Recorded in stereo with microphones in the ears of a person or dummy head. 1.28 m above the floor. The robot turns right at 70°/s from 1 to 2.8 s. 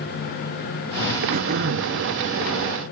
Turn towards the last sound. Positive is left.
turn(degrees=-35)